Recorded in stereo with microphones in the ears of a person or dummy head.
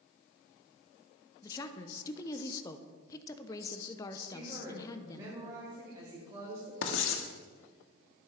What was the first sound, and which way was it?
A woman speaking, 20° left (ahead or behind).